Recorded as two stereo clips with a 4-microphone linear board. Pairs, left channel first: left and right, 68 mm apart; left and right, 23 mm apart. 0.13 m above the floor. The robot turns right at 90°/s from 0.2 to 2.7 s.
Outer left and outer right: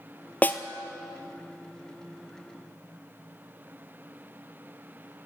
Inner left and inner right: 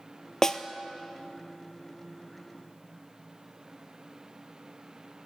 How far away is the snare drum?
About 0.7 m.